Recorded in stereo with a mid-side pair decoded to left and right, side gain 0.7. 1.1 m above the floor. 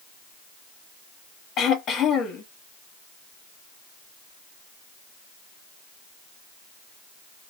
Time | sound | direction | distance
1.6 | throat clearing | 45° left | 1.4 m